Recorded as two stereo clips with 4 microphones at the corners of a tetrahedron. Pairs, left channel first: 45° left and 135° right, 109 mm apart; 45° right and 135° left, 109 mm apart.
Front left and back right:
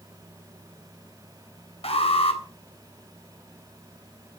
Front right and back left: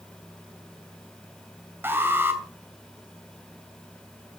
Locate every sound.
1.8 s an alarm: 65° left, 2.5 m